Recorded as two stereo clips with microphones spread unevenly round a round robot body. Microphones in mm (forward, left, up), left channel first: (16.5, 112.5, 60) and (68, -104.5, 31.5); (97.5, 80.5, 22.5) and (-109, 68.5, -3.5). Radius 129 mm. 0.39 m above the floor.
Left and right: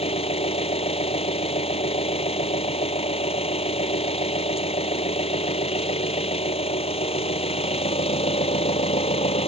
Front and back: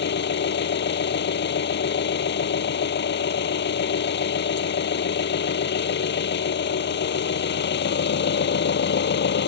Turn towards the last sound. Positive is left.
turn(degrees=40)